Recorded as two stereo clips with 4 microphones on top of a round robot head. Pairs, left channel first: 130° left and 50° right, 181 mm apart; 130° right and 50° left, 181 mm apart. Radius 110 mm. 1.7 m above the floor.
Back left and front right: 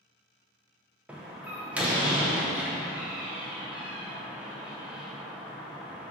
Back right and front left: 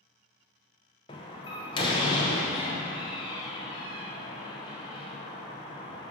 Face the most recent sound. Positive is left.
turn(degrees=-125)